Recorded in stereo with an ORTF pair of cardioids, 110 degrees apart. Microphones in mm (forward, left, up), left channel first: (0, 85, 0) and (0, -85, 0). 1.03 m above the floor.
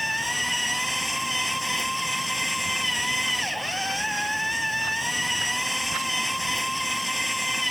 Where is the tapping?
No tapping in this recording.